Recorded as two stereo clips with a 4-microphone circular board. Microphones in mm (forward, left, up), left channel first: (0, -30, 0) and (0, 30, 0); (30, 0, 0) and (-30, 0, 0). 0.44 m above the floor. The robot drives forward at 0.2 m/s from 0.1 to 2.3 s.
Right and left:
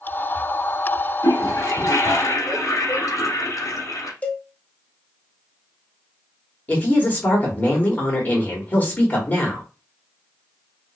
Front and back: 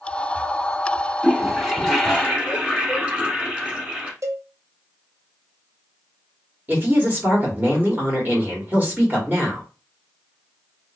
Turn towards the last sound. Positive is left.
turn(degrees=-140)